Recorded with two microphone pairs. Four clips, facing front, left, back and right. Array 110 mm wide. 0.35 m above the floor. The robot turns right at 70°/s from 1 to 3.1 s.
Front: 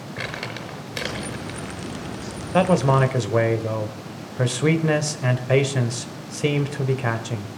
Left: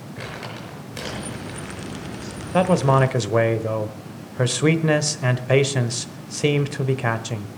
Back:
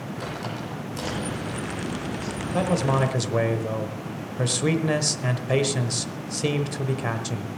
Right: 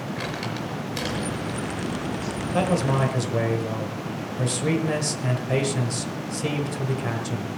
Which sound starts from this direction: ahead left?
A man speaking, at 2.5 s.